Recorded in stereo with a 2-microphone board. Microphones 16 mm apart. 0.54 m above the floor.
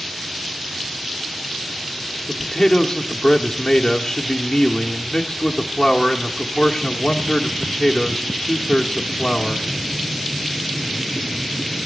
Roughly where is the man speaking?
Left.